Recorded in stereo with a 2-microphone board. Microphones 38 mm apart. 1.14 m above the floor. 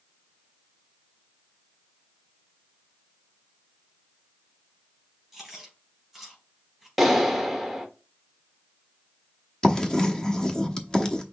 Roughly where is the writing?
Centre.